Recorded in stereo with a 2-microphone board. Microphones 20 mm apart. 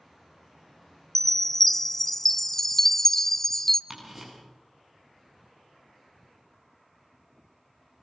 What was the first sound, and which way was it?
A chime, 20° left (ahead or behind).